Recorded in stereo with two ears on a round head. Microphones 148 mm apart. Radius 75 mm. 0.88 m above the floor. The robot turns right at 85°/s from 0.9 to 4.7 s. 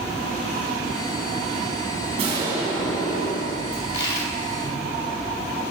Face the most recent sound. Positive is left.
turn(degrees=-160)